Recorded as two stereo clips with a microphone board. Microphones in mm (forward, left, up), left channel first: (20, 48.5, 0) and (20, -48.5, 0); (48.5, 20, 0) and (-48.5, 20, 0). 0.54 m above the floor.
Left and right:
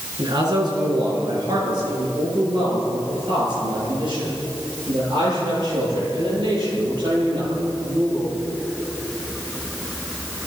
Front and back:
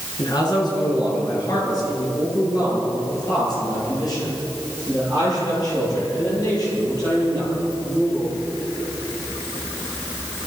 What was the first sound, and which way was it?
A man speaking, 45° right.